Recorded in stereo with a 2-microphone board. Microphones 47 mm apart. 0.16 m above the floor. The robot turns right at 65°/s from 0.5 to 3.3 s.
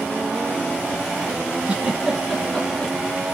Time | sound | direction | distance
1.7 | a giggle | 25° right (ahead or behind) | 1.3 m